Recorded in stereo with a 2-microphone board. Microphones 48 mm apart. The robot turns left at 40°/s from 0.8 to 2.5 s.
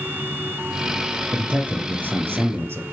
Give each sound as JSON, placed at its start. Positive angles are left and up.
{"t": 1.3, "sound": "a man speaking", "azimuth_deg": -20, "distance_m": 2.5}